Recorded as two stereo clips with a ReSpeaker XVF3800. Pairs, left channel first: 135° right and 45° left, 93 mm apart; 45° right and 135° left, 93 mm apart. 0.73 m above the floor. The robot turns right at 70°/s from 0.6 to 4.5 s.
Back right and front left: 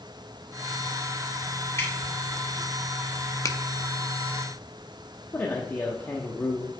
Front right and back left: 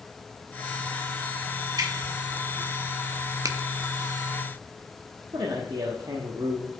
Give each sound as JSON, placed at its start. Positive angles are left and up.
{"t": 1.8, "sound": "dripping", "azimuth_deg": 170, "distance_m": 2.5}
{"t": 3.5, "sound": "a finger snap", "azimuth_deg": 175, "distance_m": 0.6}
{"t": 5.3, "sound": "a man speaking", "azimuth_deg": 160, "distance_m": 0.9}